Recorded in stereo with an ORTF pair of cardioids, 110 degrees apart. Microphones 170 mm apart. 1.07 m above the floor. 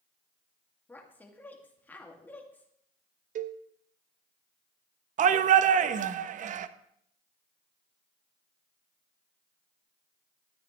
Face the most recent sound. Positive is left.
turn(degrees=-50)